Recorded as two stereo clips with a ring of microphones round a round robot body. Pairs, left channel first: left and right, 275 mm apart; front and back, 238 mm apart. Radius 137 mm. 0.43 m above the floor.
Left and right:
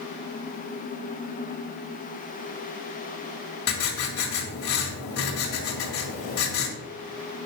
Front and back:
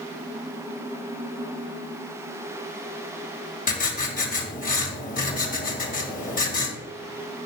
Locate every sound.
3.7 s writing: 55° left, 1.9 m